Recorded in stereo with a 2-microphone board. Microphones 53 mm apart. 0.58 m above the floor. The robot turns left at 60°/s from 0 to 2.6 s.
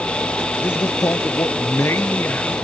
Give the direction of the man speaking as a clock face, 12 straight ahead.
7 o'clock.